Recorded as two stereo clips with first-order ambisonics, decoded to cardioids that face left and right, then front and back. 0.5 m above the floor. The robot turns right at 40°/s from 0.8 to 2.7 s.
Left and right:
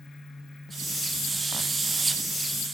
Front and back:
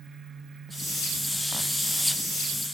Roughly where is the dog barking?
No dog barking in this recording.